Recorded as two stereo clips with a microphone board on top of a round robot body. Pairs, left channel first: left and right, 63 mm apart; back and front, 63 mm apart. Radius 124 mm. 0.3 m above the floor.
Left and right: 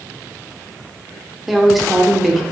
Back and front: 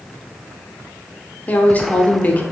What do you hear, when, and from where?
1.5 s a woman speaking: straight behind, 0.9 m